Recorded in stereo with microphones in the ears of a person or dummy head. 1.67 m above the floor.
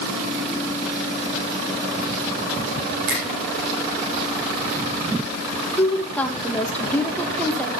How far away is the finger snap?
About 3.5 m.